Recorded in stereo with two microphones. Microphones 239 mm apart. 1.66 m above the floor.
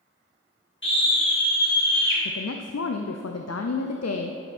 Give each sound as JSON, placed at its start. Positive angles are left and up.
{"t": 0.8, "sound": "a scream", "side_deg": 45, "distance_m": 3.5}
{"t": 2.2, "sound": "a woman speaking", "side_deg": 80, "distance_m": 0.5}